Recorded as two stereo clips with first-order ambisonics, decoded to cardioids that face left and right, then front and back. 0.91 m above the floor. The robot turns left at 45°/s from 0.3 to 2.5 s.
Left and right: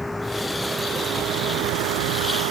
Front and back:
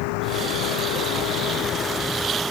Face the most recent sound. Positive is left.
turn(degrees=-95)